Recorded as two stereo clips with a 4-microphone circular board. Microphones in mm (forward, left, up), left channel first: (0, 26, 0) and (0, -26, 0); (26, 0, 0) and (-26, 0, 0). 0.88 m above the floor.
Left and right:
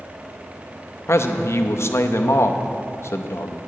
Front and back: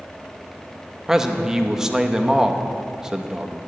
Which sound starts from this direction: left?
A man speaking, at 1.1 s.